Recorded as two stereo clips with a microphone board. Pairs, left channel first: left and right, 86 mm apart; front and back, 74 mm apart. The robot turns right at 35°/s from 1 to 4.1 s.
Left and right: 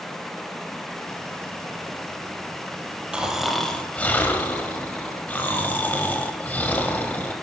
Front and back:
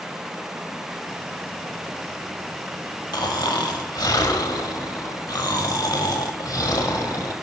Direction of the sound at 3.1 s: 15° right.